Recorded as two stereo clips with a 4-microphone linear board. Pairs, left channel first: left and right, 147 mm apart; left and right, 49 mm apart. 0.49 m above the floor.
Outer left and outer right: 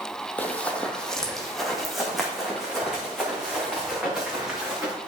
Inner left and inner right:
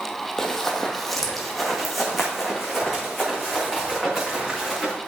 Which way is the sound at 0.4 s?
10° left (ahead or behind).